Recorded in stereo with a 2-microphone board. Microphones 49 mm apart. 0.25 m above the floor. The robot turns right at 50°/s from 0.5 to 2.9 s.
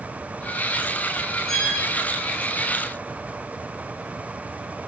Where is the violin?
5° left (ahead or behind), 6.5 m; by 1.7 s 15° left (ahead or behind), 6.5 m.